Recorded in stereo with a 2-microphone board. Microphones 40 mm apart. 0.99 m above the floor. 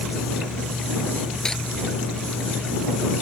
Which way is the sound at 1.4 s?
15° left (ahead or behind).